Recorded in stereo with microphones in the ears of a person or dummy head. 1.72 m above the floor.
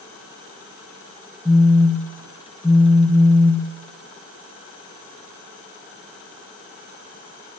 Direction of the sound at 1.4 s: 5° right (ahead or behind).